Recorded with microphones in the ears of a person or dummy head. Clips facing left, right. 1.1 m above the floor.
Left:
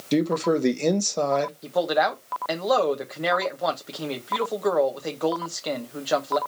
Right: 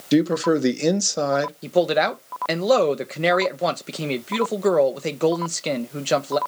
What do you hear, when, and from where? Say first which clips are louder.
0.1 s a man speaking: right 3 dB; 10° right (ahead or behind), 0.7 m
1.6 s a man speaking: right 6 dB; 35° right (ahead or behind), 1.0 m